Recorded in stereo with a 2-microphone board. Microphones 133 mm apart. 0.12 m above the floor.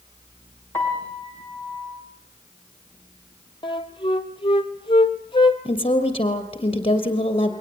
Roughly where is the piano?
Centre.